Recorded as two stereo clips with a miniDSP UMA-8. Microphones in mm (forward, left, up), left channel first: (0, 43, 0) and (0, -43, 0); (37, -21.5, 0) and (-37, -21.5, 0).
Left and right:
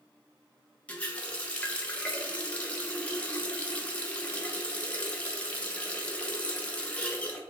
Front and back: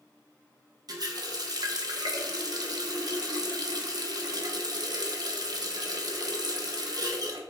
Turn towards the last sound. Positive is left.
turn(degrees=165)